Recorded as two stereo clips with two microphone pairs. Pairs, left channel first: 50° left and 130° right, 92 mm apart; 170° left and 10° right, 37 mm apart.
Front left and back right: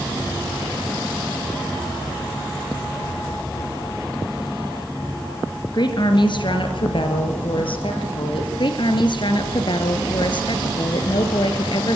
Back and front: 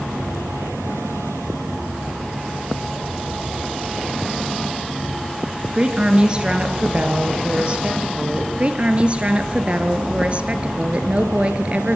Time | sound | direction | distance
5.7 | a woman speaking | 50° left | 2.5 m
8.6 | a woman speaking | 40° left | 2 m